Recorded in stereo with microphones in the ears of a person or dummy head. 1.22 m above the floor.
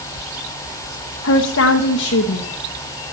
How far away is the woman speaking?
About 1.2 m.